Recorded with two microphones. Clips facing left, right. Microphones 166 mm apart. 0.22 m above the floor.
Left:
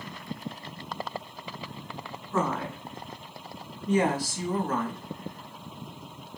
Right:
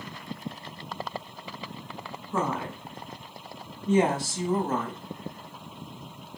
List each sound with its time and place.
2.3 s a woman speaking: 15° right (ahead or behind), 1.9 m; by 5.0 s 30° right (ahead or behind), 1.2 m